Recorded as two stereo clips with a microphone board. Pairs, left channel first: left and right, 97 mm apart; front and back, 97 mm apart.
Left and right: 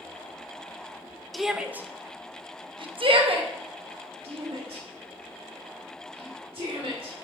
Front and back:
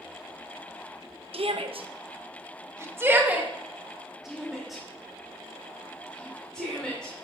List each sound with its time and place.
1.3 s a shout: straight behind, 0.9 m; by 7.1 s 80° right, 3.5 m